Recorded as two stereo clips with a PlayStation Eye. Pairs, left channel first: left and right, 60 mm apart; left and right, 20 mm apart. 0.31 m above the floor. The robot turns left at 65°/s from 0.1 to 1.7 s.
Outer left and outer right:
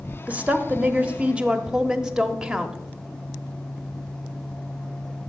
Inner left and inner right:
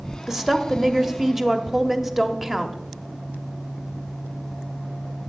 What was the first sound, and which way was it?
A woman speaking, 25° right (ahead or behind).